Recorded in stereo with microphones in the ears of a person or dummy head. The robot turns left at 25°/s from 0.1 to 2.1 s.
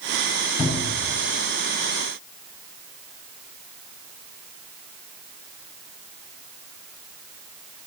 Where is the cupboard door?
10° right (ahead or behind), 8.5 m; by 1.1 s 25° right (ahead or behind), 8.5 m.